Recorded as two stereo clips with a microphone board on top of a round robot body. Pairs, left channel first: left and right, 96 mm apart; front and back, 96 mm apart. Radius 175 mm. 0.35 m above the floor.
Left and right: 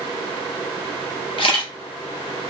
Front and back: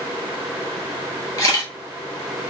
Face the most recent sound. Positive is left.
turn(degrees=55)